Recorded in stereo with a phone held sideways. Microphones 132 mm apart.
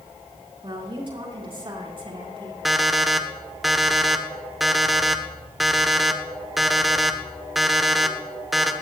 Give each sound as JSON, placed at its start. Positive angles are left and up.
{"t": 0.6, "sound": "a woman speaking", "side_deg": -40, "distance_m": 9.0}
{"t": 2.6, "sound": "an alarm clock", "side_deg": 0, "distance_m": 1.4}